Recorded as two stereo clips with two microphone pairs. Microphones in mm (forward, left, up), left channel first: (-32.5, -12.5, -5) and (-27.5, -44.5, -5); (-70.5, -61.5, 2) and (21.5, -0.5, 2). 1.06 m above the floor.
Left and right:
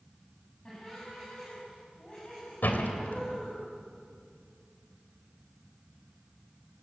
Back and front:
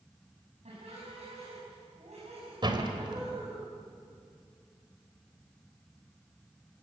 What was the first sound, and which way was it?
Laughter, 30° left.